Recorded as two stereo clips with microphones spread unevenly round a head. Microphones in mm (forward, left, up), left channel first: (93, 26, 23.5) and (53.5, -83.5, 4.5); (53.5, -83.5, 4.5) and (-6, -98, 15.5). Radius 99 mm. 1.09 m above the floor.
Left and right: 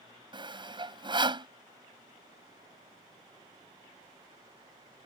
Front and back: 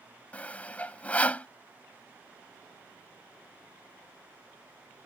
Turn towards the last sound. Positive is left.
turn(degrees=-60)